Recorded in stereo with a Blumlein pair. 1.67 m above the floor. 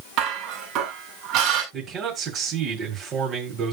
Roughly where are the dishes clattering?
Ahead right.